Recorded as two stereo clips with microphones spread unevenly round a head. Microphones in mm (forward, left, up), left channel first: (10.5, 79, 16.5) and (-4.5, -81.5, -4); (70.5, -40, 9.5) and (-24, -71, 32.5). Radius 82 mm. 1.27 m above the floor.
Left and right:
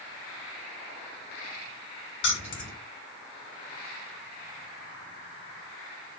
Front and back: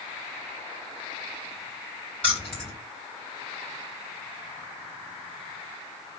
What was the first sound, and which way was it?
Keys jangling, 105° left.